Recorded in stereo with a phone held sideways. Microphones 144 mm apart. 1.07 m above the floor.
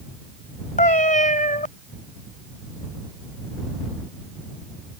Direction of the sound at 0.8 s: 65° left (ahead or behind).